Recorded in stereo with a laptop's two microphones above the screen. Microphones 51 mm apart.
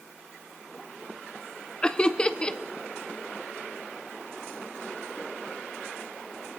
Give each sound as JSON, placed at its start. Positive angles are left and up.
{"t": 1.8, "sound": "laughter", "side_deg": 20, "distance_m": 0.5}